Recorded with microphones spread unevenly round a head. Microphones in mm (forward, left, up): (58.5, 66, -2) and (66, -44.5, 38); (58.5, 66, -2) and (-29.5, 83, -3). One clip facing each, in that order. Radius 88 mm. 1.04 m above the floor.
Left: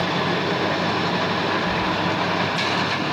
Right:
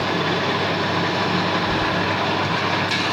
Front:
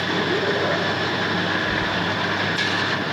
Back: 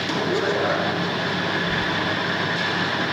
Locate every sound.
1.6 s keys jangling: 165° left, 5 m